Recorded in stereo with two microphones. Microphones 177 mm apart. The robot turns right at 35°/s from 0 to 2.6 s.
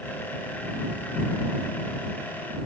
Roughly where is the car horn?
I don't hear a car horn.